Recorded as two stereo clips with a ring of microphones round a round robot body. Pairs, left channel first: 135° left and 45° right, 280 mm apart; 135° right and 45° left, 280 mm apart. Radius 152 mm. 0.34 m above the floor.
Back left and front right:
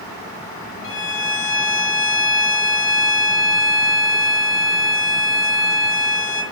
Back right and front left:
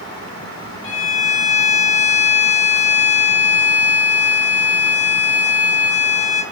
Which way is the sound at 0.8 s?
175° right.